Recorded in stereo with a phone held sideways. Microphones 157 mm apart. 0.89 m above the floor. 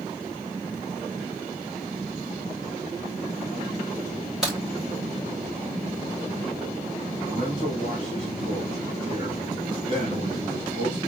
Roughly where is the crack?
Centre.